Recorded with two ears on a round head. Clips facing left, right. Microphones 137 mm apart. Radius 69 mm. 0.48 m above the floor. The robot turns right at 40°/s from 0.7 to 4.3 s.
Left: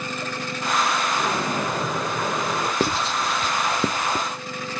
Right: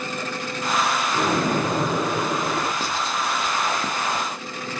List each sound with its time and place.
1.1 s a splash: 55° right, 3.5 m; by 2.7 s 5° left, 3.5 m
2.8 s writing: 45° left (ahead or behind), 0.5 m; by 4.2 s 55° left (ahead or behind), 0.5 m